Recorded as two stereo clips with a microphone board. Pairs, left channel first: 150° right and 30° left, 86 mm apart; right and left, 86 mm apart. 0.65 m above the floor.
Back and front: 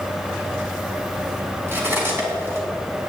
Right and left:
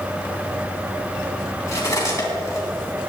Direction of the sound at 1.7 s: 35° right.